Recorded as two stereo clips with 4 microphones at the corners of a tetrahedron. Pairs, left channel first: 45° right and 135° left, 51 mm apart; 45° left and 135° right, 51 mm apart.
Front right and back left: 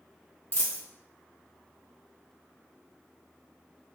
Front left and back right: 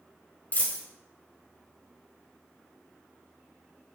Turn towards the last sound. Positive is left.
turn(degrees=-5)